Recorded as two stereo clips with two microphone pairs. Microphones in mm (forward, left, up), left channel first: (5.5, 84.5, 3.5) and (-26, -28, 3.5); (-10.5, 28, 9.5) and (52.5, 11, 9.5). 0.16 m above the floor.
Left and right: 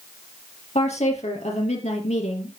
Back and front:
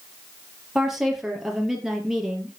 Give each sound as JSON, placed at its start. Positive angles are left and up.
{"t": 0.8, "sound": "a woman speaking", "azimuth_deg": 70, "distance_m": 4.5}